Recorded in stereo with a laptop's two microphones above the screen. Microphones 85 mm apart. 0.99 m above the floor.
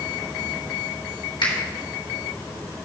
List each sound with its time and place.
1.4 s a finger snap: 70° left (ahead or behind), 3 m